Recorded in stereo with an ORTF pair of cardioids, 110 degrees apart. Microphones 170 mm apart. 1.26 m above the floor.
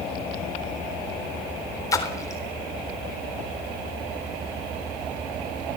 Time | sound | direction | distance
1.9 | a splash | 20° left | 3.5 m